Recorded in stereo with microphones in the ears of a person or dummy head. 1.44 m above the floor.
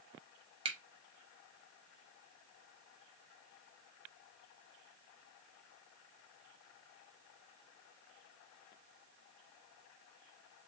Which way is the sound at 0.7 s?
30° right (ahead or behind).